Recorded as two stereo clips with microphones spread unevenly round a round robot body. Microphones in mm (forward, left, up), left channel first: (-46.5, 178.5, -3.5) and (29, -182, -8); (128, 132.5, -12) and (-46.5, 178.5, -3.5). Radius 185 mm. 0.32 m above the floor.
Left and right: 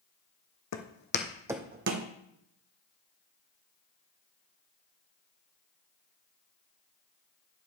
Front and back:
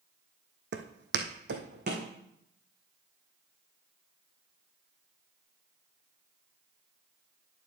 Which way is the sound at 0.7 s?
150° left.